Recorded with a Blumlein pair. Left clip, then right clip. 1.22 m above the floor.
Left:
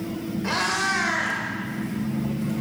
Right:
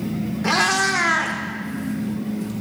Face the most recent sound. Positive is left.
turn(degrees=-70)